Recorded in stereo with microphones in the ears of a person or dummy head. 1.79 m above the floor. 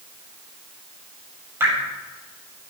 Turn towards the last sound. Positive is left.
turn(degrees=-15)  # may be behind; listen again after turning